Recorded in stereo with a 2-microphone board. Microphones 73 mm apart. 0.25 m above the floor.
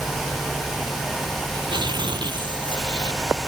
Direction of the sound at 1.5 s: 80° right.